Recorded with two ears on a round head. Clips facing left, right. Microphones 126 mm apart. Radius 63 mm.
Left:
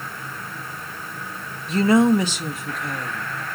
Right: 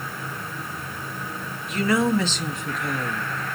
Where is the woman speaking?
30° left (ahead or behind), 0.7 m; by 3.6 s 10° right (ahead or behind), 1.4 m.